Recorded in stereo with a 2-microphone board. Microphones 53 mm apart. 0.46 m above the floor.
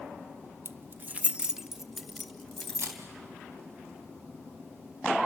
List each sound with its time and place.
0.7 s keys jangling: 45° right (ahead or behind), 0.5 m; by 3.0 s 5° left (ahead or behind), 2 m
2.8 s a camera shutter: 70° right (ahead or behind), 3.5 m